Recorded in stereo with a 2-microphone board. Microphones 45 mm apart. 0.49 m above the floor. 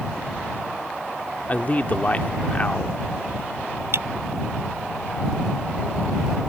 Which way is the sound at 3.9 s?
60° right (ahead or behind).